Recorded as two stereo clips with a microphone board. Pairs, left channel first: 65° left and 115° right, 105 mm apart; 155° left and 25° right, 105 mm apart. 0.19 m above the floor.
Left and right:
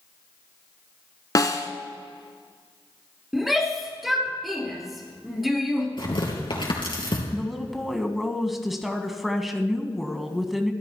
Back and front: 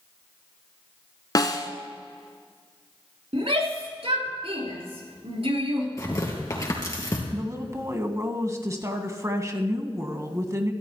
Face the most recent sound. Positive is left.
turn(degrees=-25)